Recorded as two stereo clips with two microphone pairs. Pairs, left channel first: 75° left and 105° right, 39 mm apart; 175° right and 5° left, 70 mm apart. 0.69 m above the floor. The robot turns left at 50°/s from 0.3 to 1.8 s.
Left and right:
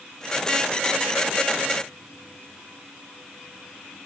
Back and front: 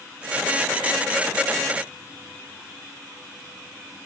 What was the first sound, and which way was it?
Only background noise.